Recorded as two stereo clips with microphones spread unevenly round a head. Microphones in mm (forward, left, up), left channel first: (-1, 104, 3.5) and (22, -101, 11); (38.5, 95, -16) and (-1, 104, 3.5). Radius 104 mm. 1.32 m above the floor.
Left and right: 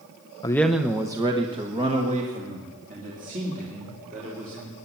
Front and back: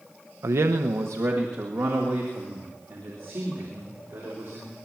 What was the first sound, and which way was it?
A man speaking, 170° left.